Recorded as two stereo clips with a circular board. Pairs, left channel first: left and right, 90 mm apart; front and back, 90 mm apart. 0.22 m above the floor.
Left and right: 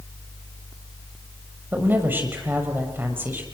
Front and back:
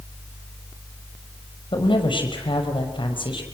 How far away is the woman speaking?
About 6 m.